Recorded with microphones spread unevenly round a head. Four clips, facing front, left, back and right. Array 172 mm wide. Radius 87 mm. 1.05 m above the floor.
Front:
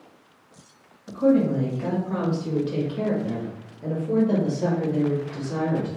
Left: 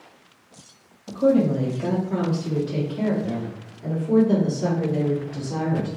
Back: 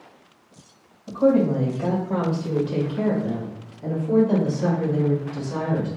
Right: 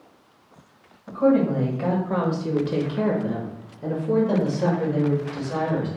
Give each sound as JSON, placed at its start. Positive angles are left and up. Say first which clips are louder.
{"t": 1.1, "sound": "a woman speaking", "louder": "even, back 1 dB", "azimuth_deg": -150, "distance_m": 1.5}